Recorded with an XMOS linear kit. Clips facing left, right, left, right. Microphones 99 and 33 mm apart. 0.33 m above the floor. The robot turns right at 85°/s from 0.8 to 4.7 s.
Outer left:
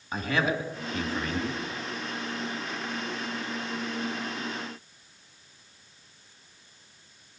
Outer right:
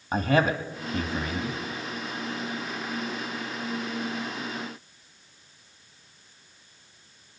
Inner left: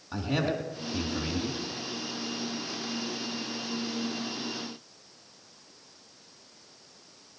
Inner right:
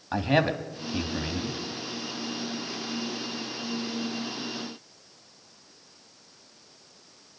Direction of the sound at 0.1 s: 60° right.